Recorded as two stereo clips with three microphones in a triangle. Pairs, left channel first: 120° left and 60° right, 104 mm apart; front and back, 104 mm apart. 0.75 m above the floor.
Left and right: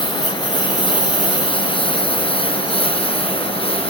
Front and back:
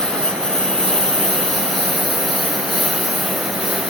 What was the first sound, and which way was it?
A lawn mower, 85° left.